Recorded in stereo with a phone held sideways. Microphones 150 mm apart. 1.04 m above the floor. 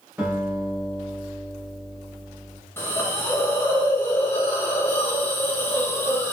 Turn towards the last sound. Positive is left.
turn(degrees=15)  # may be behind; listen again after turning